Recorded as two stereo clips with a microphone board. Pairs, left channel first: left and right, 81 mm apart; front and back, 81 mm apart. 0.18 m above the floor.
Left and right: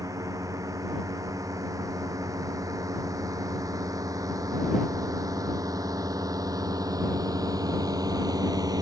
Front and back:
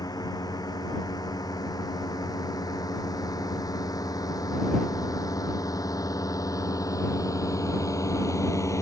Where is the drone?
40° right; by 8.8 s 50° right.